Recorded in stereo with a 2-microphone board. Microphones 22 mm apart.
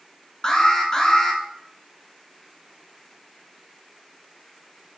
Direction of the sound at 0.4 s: 30° left (ahead or behind).